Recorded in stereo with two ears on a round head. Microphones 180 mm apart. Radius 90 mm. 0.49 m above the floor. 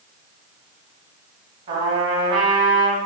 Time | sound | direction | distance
1.7 | a trumpet | 30° right (ahead or behind) | 1.1 m